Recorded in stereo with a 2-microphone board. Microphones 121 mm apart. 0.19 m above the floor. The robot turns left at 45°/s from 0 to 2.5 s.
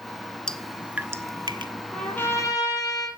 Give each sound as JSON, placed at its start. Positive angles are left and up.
{"t": 0.5, "sound": "dripping", "side_deg": 5, "distance_m": 0.7}
{"t": 1.9, "sound": "a trumpet", "side_deg": 5, "distance_m": 3.5}